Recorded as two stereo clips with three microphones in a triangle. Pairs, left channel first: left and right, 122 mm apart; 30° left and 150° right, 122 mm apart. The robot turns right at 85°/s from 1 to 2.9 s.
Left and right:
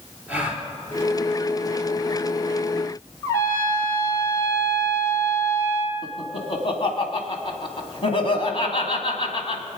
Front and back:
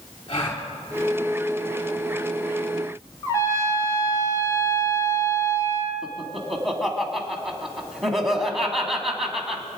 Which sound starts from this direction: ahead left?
A trumpet, at 3.2 s.